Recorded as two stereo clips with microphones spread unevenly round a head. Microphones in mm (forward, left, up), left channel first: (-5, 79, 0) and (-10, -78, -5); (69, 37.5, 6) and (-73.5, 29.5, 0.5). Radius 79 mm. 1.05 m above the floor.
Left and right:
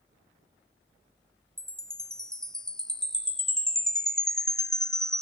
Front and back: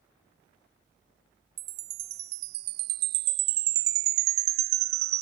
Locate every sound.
1.6 s a chime: 175° left, 0.6 m